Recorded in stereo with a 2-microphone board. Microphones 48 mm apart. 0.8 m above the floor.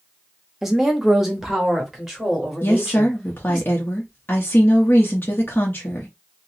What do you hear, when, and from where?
0.6 s a woman speaking: 5° right (ahead or behind), 1.0 m
2.6 s a woman speaking: 45° left (ahead or behind), 0.8 m